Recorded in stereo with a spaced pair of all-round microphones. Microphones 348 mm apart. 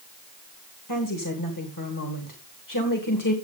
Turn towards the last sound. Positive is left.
turn(degrees=70)  # may be behind; listen again after turning